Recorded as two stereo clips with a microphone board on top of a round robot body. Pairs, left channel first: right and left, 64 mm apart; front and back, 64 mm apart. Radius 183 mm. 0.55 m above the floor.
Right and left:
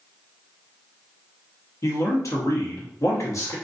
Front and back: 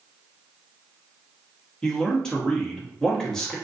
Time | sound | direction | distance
1.8 | a man speaking | 80° right | 1.1 m